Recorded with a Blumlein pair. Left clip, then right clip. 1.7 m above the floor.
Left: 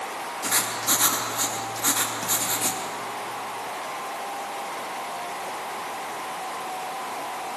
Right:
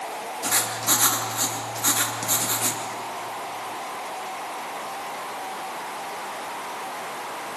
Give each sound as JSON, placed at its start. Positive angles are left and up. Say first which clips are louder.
{"t": 0.4, "sound": "writing", "louder": "right 1 dB", "azimuth_deg": -5, "distance_m": 3.0}